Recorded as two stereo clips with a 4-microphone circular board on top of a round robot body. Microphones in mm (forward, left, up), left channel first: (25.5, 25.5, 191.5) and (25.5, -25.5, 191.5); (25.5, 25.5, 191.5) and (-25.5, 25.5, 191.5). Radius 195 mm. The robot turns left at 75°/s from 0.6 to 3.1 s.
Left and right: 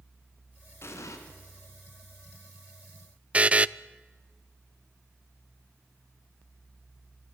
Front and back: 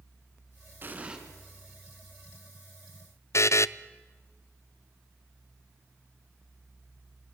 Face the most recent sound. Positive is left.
turn(degrees=-25)